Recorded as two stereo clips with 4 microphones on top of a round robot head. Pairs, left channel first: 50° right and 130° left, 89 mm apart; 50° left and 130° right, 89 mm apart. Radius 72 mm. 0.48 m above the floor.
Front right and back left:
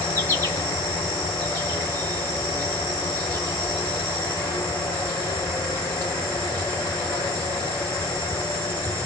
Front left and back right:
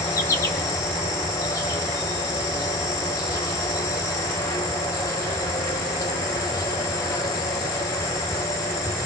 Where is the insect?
Straight ahead, 3 m.